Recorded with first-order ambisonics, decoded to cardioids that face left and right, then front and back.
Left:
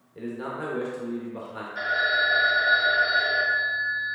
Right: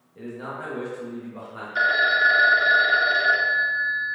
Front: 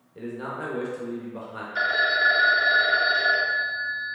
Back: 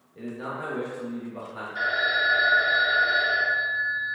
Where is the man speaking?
45° left, 1.0 m.